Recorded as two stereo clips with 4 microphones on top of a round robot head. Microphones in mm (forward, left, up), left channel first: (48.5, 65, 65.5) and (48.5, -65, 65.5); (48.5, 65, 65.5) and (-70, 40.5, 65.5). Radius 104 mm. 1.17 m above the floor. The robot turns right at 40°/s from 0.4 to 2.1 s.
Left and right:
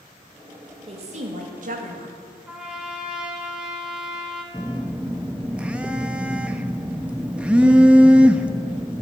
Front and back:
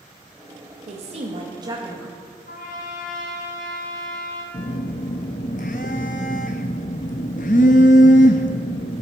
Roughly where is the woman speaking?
Behind right.